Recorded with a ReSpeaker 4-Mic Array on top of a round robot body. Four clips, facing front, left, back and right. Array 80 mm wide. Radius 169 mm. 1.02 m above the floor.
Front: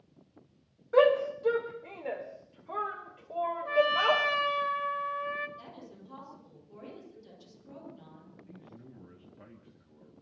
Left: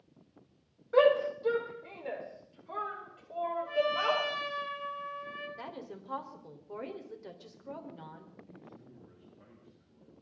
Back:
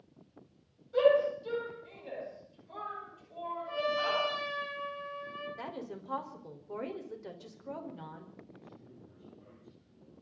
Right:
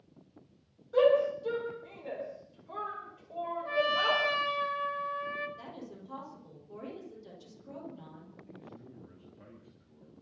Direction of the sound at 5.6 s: 145° left.